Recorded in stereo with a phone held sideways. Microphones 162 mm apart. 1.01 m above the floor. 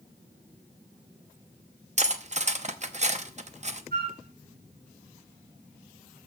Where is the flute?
75° right (ahead or behind), 2.5 m.